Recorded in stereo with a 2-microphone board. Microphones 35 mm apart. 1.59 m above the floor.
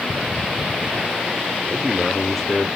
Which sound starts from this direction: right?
A man speaking, at 1.6 s.